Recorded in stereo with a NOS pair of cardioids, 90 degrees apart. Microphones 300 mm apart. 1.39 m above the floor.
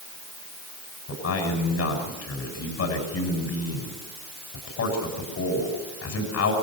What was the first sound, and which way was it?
A man speaking, 55° left.